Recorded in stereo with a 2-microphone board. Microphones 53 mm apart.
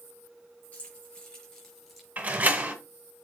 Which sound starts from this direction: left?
Keys jangling, at 0.7 s.